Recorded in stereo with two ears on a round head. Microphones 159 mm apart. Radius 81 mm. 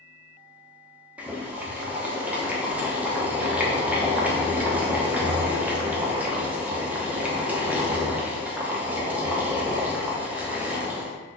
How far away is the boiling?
About 0.6 m.